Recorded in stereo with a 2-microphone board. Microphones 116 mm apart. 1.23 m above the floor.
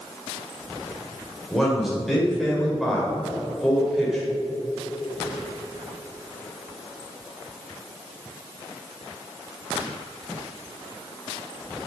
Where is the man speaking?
Centre (ahead or behind), 4.5 m.